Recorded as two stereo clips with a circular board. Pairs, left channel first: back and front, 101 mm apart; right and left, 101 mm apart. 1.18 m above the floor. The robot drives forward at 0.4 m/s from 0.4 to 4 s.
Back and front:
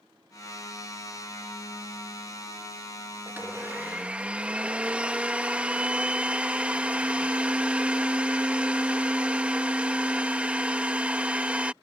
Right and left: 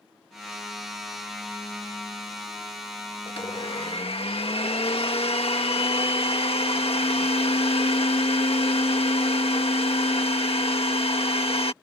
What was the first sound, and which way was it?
A blender, 70° right.